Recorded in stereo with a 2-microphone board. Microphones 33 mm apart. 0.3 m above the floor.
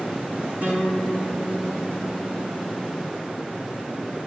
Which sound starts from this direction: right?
A guitar, at 0.6 s.